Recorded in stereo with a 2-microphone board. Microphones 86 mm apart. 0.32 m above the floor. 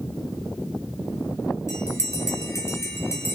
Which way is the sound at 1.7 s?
30° left (ahead or behind).